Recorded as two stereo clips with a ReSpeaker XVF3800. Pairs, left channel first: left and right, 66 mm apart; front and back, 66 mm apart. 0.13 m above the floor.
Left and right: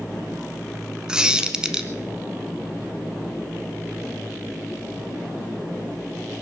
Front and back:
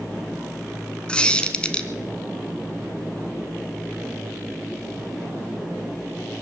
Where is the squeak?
40° right, 1.0 m.